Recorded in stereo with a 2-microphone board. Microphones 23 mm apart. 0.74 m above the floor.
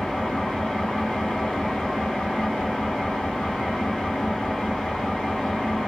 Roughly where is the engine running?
Left.